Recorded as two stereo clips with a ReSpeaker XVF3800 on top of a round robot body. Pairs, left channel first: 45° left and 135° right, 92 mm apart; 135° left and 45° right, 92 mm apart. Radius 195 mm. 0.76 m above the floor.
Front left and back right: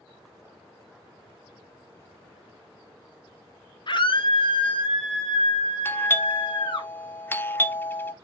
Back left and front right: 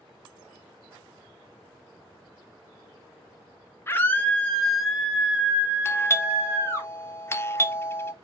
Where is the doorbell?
95° left, 1.1 m.